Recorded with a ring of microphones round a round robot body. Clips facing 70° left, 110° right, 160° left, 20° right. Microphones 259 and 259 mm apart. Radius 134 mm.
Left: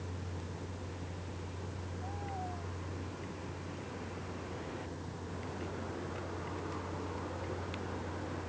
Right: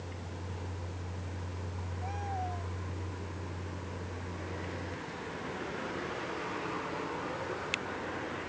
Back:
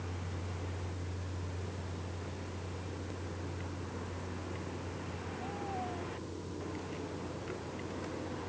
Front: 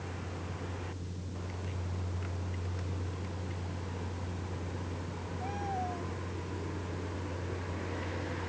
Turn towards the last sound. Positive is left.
No sound to turn to.